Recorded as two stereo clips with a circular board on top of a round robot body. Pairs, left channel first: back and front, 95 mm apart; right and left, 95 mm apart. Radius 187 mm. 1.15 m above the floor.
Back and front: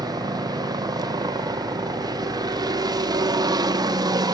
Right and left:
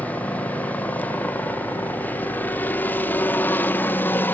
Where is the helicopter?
20° right; by 4.3 s 25° right.